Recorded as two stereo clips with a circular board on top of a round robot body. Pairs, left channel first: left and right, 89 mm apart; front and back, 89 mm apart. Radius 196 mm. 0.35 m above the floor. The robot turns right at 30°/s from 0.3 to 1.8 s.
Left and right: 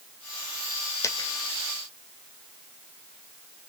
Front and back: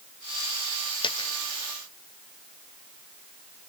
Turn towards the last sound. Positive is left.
turn(degrees=55)